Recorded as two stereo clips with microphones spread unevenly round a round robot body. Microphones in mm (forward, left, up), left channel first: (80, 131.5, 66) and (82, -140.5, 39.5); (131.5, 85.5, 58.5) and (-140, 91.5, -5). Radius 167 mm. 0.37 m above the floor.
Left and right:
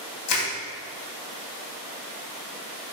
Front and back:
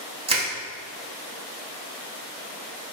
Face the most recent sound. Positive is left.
turn(degrees=115)